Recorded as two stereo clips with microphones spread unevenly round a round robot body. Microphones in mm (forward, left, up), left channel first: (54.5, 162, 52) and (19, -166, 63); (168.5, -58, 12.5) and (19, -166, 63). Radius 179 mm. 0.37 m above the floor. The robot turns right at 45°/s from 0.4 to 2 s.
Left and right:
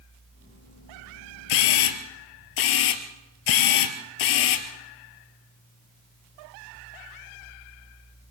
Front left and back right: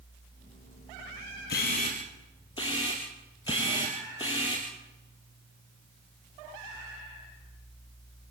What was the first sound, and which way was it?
A camera shutter, 90° left.